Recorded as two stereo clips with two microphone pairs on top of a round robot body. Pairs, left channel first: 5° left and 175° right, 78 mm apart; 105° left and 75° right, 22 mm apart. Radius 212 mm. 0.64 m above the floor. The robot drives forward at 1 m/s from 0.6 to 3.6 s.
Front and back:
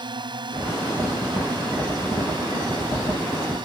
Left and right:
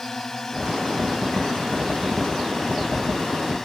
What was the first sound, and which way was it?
A drone, straight behind.